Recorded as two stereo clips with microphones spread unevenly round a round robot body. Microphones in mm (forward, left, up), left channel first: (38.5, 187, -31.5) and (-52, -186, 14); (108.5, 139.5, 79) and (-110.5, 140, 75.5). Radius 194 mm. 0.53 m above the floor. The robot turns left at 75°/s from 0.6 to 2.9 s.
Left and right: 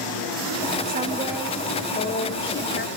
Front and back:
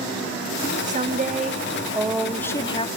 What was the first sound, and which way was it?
A woman speaking, 165° right.